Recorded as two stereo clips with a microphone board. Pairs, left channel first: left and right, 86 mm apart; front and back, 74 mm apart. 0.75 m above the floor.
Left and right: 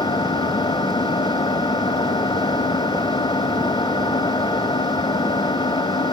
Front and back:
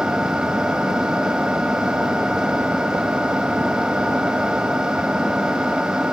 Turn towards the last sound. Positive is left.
turn(degrees=105)